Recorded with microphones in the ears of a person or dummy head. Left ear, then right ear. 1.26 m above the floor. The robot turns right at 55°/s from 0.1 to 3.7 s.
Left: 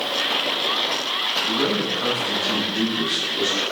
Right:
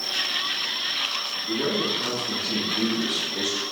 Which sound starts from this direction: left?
A man speaking, at 1.5 s.